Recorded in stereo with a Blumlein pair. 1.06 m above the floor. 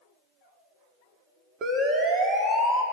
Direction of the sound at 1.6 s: 30° right.